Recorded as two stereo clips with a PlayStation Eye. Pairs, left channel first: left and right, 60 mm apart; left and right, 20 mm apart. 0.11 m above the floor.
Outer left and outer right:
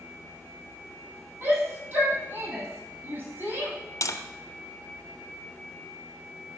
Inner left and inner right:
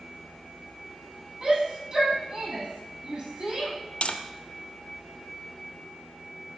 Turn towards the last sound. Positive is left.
turn(degrees=60)  # may be behind; listen again after turning